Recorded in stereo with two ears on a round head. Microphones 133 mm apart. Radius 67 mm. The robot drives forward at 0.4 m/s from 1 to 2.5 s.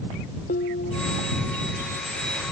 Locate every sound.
0.5 s dishes clattering: 60° left (ahead or behind)